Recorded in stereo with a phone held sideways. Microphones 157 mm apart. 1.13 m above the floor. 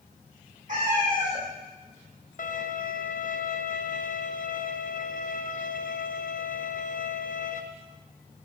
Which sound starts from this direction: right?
A cat meowing, at 0.7 s.